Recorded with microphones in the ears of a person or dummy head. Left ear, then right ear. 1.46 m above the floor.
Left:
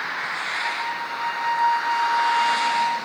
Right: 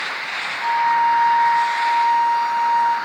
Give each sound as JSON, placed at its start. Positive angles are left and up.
{"t": 0.6, "sound": "a flute", "side_deg": -60, "distance_m": 1.2}